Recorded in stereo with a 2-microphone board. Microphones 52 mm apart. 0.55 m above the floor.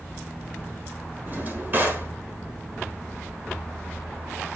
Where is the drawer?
35° right (ahead or behind), 1.0 m.